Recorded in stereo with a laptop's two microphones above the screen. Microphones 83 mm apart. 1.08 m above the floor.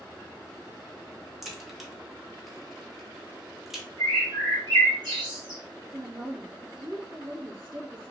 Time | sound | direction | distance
1.4 | a crack | 5° right (ahead or behind) | 0.6 m
4.0 | a bird | 70° right (ahead or behind) | 1.5 m
5.9 | a woman speaking | 65° right (ahead or behind) | 1.0 m